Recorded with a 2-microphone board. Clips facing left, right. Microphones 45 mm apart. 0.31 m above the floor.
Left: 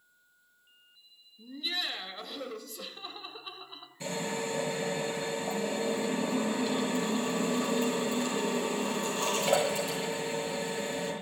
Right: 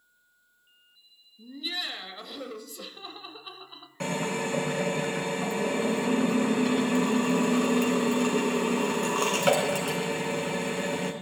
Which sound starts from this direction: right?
A drill, at 4.0 s.